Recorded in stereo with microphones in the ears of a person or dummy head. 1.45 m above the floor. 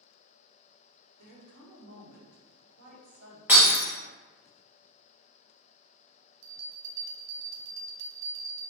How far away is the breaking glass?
About 1.2 m.